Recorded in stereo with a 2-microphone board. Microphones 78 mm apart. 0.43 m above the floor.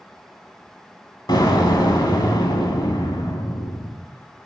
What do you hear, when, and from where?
1.3 s an explosion: 70° left (ahead or behind), 1.5 m